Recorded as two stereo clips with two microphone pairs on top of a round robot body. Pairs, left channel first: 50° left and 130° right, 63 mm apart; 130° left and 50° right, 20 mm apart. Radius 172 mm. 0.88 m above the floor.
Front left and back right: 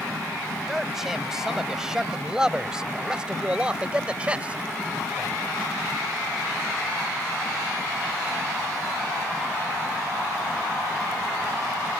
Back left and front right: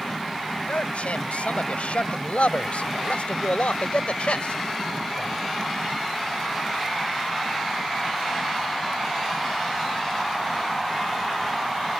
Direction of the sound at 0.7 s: 145° left.